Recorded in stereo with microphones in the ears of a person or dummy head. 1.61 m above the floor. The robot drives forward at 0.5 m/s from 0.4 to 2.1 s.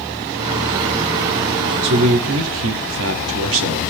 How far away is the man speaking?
About 0.8 m.